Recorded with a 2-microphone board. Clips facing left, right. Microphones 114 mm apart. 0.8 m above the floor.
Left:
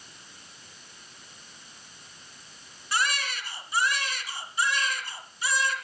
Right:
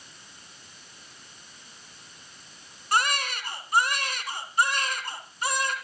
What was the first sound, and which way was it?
A baby crying, 55° right (ahead or behind).